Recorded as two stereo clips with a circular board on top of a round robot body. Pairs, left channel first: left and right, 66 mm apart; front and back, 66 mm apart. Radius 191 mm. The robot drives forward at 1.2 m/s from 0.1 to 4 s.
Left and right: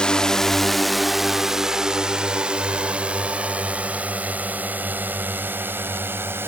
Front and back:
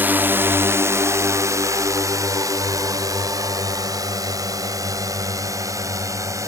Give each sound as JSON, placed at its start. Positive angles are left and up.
{"t": 0.0, "sound": "a drone", "azimuth_deg": 155}